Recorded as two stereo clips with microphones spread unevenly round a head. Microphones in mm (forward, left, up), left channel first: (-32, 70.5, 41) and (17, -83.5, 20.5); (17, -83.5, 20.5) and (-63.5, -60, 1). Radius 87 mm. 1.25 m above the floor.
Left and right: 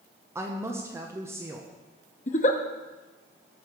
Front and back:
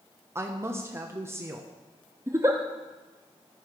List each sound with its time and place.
0.3 s a woman speaking: 145° right, 1.0 m
2.3 s a giggle: 90° left, 0.7 m